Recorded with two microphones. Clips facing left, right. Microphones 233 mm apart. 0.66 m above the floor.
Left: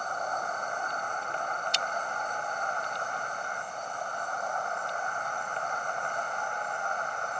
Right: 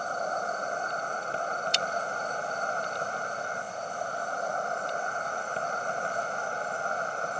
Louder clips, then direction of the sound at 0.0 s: Right 3 dB; 35° right (ahead or behind).